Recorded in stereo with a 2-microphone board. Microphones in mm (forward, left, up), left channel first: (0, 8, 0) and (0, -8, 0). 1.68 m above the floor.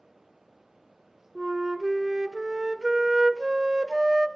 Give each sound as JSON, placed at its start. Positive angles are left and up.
{"t": 1.4, "sound": "a flute", "side_deg": -30, "distance_m": 0.5}